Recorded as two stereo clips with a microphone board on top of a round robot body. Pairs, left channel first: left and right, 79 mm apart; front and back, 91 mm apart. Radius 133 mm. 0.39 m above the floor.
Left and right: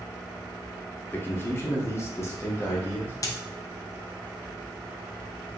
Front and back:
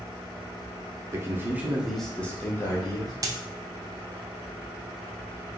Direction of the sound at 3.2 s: 130° left.